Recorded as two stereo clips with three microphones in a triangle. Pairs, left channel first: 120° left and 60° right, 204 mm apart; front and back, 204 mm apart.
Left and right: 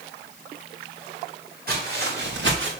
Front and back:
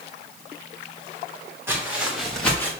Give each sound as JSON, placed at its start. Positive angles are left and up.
{"t": 1.7, "sound": "footsteps", "azimuth_deg": -100, "distance_m": 4.0}